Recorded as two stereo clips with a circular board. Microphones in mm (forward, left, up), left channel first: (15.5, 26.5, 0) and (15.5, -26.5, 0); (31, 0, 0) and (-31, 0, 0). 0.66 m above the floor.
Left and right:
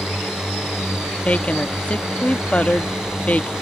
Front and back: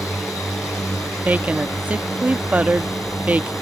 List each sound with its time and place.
0.0 s a drone: 10° right
1.2 s a woman speaking: 140° left